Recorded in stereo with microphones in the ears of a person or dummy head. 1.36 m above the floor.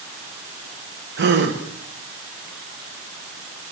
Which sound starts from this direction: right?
A gasp, at 1.2 s.